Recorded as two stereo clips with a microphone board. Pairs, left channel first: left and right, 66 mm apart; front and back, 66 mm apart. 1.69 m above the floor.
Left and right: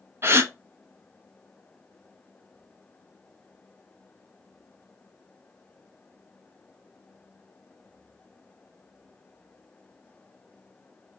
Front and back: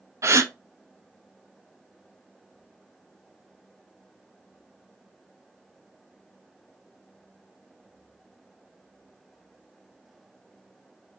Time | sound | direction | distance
0.2 | a gasp | 135° right | 0.6 m